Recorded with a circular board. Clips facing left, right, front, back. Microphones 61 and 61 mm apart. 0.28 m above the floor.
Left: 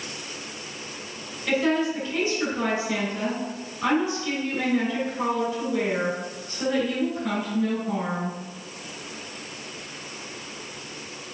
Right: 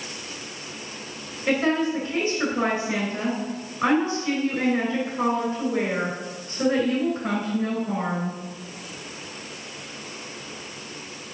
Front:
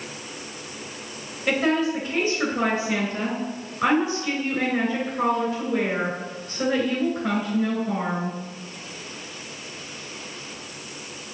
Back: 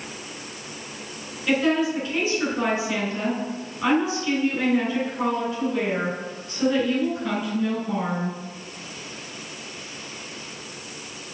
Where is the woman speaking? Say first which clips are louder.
Right 1 dB, back 1 dB; 50° right, 3 m.